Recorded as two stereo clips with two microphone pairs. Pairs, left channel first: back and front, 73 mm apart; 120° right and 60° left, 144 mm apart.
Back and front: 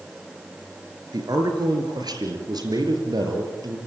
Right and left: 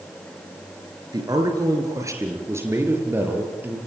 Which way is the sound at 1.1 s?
5° left.